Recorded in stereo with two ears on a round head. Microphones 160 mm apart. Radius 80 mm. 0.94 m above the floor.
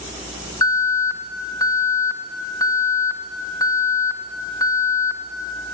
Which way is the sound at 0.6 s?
20° left (ahead or behind).